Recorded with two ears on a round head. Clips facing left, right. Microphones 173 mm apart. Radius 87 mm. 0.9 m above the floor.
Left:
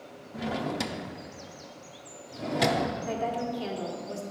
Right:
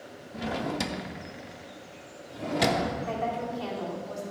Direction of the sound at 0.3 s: Centre (ahead or behind).